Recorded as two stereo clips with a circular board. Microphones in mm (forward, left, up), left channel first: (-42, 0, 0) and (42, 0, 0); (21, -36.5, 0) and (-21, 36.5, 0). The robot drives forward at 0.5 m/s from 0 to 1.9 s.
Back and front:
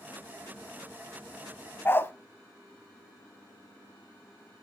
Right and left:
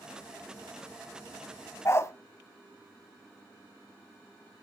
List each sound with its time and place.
1.9 s a dog barking: 115° right, 0.6 m